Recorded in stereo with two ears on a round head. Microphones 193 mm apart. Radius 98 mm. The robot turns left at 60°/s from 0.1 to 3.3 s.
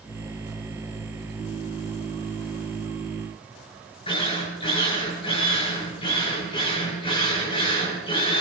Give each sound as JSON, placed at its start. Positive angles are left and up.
{"t": 4.1, "sound": "a drill", "side_deg": 25, "distance_m": 7.5}